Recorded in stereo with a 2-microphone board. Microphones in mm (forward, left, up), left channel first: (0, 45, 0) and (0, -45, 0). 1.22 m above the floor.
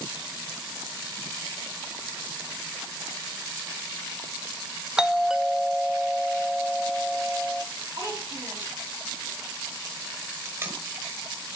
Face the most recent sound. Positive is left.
turn(degrees=-35)  # may be behind; listen again after turning